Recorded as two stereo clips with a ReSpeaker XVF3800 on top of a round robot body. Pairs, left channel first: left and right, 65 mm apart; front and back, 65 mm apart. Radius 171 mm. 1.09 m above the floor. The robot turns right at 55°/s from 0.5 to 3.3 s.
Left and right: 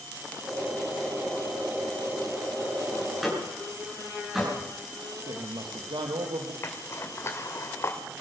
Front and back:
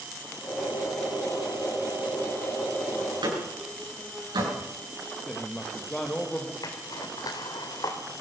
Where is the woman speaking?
75° right, 1.8 m.